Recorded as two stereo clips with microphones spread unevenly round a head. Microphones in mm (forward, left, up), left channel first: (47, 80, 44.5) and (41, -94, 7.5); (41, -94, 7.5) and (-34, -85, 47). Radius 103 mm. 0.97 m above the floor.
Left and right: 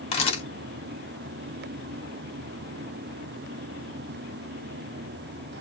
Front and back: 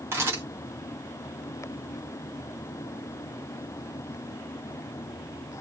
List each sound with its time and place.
0.1 s a camera shutter: 85° left, 0.8 m